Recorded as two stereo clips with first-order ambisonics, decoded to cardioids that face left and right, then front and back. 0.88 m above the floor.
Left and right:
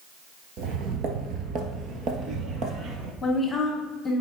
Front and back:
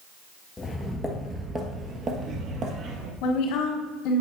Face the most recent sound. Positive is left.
turn(degrees=15)